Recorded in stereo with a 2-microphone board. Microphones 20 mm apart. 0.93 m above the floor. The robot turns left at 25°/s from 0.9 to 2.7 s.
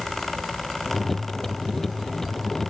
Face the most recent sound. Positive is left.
No sound to turn to.